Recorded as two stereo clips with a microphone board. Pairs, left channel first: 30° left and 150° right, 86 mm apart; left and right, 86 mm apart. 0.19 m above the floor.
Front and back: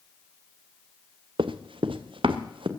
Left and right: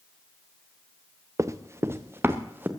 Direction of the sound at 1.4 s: 145° right.